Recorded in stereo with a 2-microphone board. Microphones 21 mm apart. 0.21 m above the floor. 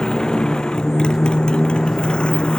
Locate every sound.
0.0 s a motorcycle: 45° left (ahead or behind); by 2.6 s 60° left (ahead or behind)